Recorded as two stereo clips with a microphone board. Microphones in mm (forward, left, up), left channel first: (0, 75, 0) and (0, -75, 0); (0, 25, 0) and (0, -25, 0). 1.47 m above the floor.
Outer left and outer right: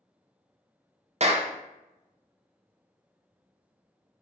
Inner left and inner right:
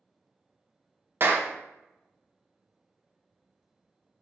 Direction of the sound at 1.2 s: 45° right (ahead or behind).